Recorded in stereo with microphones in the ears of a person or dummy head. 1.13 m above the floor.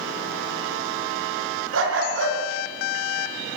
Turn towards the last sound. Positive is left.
turn(degrees=-50)  # may be behind; listen again after turning